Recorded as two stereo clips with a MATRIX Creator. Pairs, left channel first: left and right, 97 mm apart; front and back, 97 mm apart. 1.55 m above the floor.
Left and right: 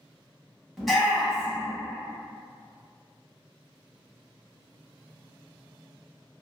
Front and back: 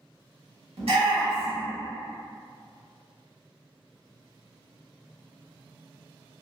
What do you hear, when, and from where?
0.8 s a shout: straight behind, 1.7 m